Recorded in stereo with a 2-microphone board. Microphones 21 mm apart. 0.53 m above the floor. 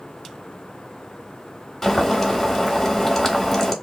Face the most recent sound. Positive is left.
turn(degrees=10)  # may be behind; listen again after turning